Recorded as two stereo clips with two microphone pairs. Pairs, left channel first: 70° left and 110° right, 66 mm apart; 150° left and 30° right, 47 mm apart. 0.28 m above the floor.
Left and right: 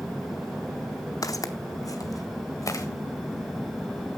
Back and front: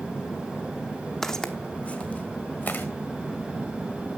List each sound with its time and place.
1.2 s footsteps: 65° left, 0.7 m; by 2.9 s 105° left, 1.3 m